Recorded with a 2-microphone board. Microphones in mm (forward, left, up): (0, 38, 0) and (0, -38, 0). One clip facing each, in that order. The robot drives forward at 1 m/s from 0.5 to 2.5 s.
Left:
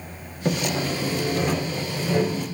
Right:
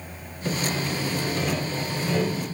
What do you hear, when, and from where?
0.5 s sawing: 40° left (ahead or behind), 1.1 m; by 2.5 s 15° left (ahead or behind), 3 m